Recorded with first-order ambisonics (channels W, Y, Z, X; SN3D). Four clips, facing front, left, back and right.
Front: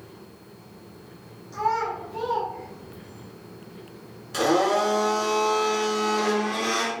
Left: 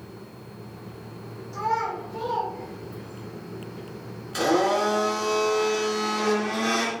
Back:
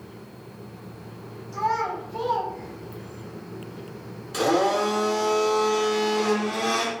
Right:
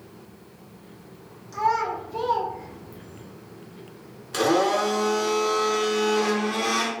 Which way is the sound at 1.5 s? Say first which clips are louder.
Right 3 dB, even; 75° right.